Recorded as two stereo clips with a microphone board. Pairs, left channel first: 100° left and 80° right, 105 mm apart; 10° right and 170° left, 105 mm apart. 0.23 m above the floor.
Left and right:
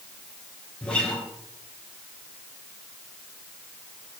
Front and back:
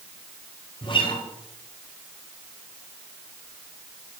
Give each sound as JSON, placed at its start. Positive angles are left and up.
{"t": 0.8, "sound": "a guitar", "azimuth_deg": 20, "distance_m": 3.5}